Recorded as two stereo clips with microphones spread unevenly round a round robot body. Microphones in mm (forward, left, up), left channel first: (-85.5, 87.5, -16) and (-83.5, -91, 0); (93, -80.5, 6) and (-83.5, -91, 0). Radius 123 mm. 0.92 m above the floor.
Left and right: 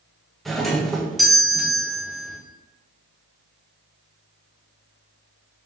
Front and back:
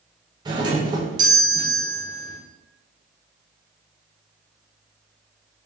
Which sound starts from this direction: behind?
A doorbell, at 0.5 s.